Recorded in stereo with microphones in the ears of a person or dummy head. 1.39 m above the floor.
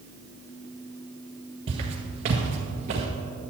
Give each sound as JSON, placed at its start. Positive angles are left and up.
{"t": 1.7, "sound": "footsteps", "side_deg": -30, "distance_m": 1.6}